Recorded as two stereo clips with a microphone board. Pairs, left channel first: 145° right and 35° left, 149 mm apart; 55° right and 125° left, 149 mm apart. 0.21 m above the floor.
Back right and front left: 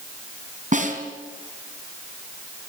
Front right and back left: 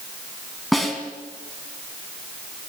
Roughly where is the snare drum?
Ahead left.